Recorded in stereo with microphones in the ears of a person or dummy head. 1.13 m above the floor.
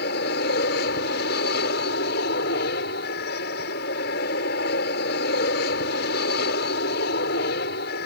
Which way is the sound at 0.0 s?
60° left (ahead or behind).